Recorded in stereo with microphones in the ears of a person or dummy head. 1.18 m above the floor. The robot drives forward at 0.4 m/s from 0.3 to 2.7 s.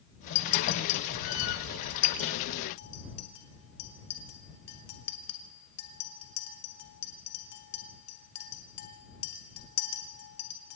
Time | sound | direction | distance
0.3 | a clink | 75° left (ahead or behind) | 1.4 m